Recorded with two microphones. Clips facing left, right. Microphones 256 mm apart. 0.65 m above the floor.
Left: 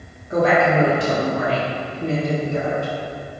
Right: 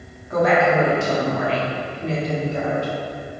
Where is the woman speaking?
25° left (ahead or behind), 1.2 m; by 2.9 s 55° left (ahead or behind), 1.6 m.